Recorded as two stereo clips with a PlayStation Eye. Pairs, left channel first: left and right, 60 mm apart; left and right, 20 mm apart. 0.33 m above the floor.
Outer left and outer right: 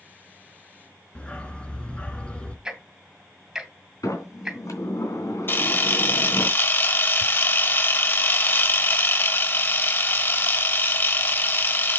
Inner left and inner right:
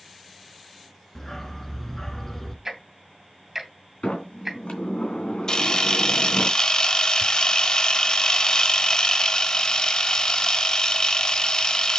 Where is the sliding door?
70° left (ahead or behind), 3 m.